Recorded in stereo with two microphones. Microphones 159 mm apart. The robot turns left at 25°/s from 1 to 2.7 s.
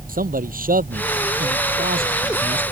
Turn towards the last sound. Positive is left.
turn(degrees=-115)